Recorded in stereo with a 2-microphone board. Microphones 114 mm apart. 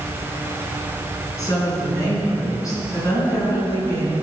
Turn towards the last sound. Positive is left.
turn(degrees=30)  # may be behind; listen again after turning